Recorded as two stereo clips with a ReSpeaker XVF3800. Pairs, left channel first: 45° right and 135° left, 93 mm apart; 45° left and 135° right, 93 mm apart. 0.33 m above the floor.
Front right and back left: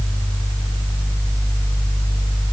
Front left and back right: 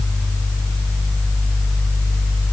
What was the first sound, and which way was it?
Only background noise.